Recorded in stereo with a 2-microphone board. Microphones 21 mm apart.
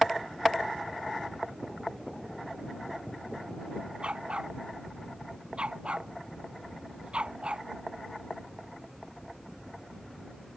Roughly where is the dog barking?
Right.